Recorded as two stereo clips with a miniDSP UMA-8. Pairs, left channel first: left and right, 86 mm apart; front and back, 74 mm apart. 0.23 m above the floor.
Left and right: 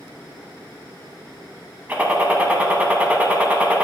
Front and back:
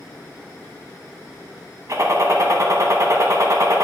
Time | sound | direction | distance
1.9 | a gunshot | 155° right | 1.1 m